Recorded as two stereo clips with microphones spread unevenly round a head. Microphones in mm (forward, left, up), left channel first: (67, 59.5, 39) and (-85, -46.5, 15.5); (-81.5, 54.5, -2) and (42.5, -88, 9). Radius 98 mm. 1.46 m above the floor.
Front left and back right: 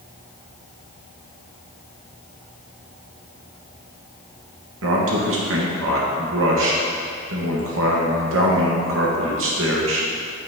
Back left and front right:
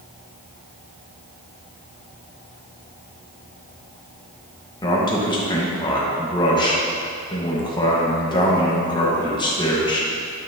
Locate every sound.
4.8 s a man speaking: 160° right, 1.5 m